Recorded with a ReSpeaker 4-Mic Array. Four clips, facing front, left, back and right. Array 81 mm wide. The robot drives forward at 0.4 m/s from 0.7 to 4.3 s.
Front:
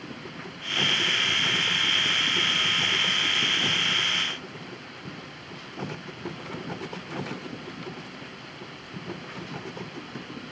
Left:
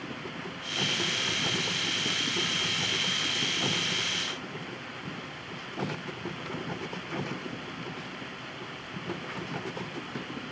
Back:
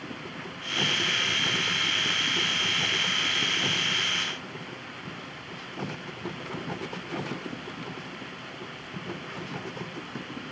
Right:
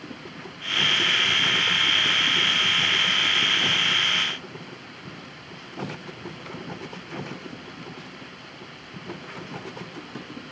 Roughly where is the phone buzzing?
No phone buzzing in this recording.